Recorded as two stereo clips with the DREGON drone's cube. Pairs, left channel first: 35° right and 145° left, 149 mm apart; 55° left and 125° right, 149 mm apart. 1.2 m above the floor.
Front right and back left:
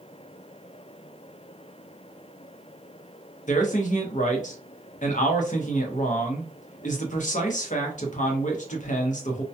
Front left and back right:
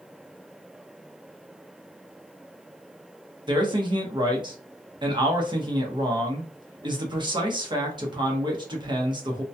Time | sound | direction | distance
3.5 | a man speaking | 65° right | 0.8 m